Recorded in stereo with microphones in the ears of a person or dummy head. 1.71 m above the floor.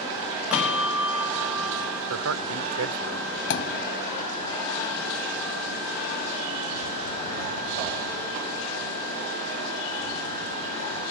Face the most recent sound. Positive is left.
turn(degrees=60)  # may be behind; listen again after turning